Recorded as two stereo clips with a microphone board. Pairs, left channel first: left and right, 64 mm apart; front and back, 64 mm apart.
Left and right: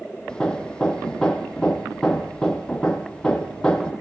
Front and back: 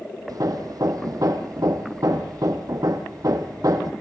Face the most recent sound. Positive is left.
turn(degrees=165)